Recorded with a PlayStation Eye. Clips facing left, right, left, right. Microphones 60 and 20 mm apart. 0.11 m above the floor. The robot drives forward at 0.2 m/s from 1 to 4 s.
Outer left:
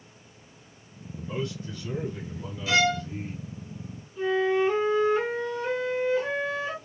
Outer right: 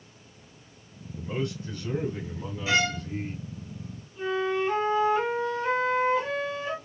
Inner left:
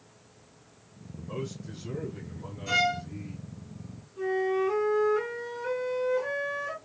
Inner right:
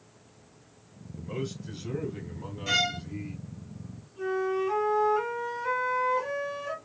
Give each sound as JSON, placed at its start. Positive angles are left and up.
{"t": 1.2, "sound": "a man speaking", "side_deg": -25, "distance_m": 1.1}
{"t": 2.7, "sound": "a violin", "side_deg": -25, "distance_m": 1.2}
{"t": 4.2, "sound": "a flute", "side_deg": 5, "distance_m": 2.5}